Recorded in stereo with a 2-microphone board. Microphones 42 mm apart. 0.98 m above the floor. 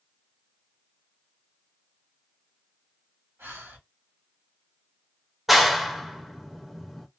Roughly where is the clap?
Centre.